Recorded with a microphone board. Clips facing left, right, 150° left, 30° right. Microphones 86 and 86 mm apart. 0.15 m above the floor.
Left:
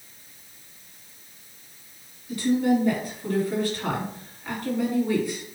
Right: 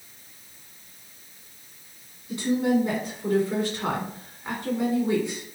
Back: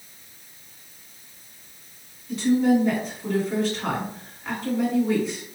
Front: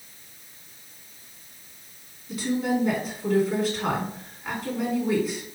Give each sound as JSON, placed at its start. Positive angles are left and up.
{"t": 2.3, "sound": "a woman speaking", "azimuth_deg": -105, "distance_m": 1.6}